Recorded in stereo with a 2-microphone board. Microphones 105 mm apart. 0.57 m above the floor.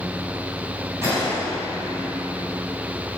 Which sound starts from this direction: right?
A gunshot, at 1.0 s.